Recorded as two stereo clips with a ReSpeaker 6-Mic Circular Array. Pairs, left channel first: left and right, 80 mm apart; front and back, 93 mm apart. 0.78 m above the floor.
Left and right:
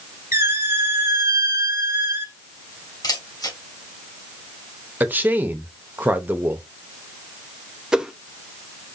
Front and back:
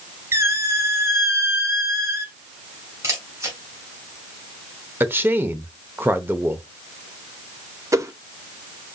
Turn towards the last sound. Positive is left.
turn(degrees=-165)